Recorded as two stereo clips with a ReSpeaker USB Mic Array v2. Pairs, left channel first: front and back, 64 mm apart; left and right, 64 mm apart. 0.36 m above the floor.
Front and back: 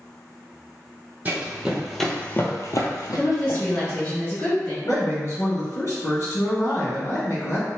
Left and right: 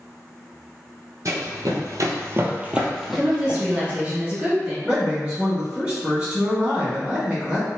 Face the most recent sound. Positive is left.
turn(degrees=-25)